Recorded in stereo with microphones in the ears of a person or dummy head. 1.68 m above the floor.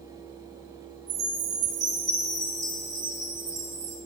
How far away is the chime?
About 2.5 m.